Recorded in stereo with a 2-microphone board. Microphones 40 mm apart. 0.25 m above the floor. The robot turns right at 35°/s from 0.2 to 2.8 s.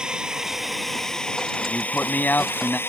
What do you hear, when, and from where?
0.0 s a drone: 20° right; by 2.9 s 70° left
1.7 s a man speaking: 80° left; by 2.8 s 120° left